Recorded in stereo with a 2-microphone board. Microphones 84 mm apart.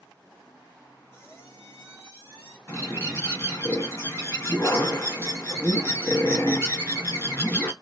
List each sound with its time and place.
1.1 s a squeak: 30° left (ahead or behind), 0.9 m
2.7 s a bird: 30° left (ahead or behind), 1.3 m